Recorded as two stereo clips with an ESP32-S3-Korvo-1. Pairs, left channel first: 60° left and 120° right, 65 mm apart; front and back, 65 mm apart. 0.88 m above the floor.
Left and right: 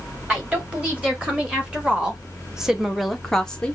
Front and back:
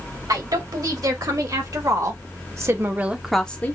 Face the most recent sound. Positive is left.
turn(degrees=0)